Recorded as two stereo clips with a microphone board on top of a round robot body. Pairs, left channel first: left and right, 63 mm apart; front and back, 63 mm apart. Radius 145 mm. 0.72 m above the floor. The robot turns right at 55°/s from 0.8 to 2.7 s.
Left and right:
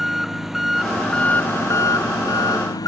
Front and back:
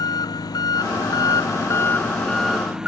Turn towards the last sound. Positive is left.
turn(degrees=100)